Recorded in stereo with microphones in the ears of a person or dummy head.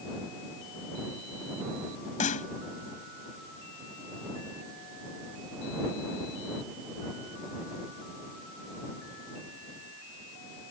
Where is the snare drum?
40° left (ahead or behind).